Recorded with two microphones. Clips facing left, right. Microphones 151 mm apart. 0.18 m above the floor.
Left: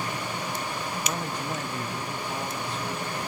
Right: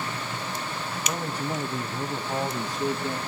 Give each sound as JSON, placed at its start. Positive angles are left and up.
{"t": 1.1, "sound": "a man speaking", "side_deg": 0, "distance_m": 1.1}